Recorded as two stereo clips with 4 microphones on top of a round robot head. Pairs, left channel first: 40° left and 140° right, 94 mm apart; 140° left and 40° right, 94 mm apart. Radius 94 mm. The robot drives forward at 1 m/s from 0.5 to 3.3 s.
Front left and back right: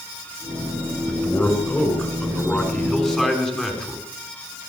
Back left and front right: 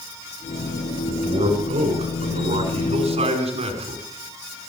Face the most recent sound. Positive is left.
turn(degrees=-45)